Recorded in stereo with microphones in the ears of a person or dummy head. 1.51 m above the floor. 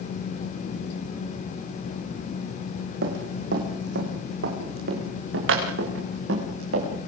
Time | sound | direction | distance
3.0 | running footsteps | 70° right (ahead or behind) | 6 m